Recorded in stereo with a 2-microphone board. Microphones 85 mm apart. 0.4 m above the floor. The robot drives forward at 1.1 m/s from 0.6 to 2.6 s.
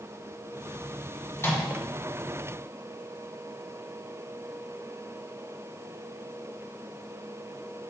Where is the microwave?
30° left (ahead or behind), 2 m.